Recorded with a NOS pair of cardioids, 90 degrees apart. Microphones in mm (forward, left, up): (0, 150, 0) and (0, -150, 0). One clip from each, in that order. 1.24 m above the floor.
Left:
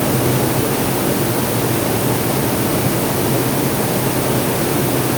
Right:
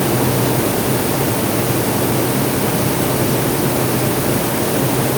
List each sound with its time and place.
Only background noise.